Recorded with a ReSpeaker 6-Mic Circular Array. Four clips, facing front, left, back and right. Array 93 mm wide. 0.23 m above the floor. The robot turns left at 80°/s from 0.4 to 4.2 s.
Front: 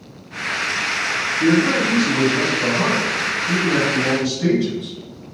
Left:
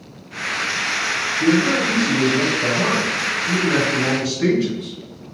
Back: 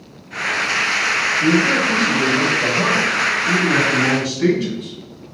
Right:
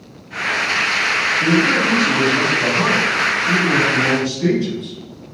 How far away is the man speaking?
About 1.6 m.